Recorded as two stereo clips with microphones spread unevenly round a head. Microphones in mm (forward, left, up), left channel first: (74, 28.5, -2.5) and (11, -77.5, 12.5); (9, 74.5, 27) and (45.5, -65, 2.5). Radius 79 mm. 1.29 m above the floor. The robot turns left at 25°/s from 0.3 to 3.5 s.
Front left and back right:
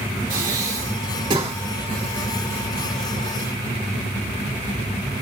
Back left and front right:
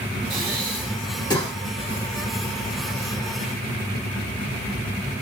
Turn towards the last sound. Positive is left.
turn(degrees=115)